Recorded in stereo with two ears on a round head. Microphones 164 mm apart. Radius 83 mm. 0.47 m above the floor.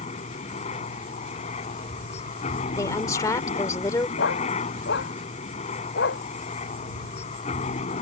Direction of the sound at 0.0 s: 40° left (ahead or behind).